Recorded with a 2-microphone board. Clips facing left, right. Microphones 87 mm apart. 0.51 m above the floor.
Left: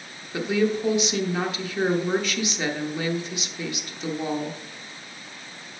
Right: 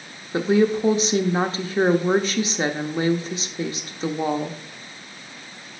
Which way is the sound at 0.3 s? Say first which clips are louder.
Right 5 dB; 35° right (ahead or behind).